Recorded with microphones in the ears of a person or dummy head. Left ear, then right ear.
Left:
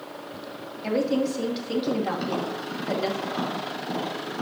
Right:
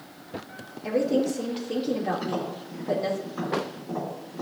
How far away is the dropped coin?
No dropped coin in this recording.